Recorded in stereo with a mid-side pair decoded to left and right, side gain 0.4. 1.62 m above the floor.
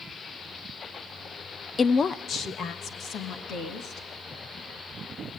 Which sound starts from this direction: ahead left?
A woman speaking, at 1.8 s.